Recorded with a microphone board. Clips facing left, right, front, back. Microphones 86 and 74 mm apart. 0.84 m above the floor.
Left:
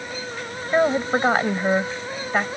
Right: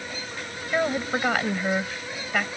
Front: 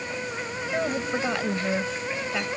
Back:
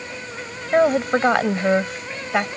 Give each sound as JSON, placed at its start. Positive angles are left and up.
{"t": 0.7, "sound": "a woman speaking", "azimuth_deg": 150}